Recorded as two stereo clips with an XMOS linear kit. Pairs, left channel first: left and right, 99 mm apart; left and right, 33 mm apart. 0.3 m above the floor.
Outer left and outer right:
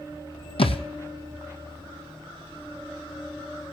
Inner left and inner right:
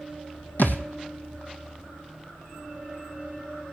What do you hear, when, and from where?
0.6 s a thud: 70° left (ahead or behind), 0.9 m